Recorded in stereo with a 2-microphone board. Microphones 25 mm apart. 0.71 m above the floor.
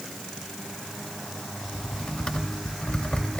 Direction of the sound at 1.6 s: 50° left (ahead or behind).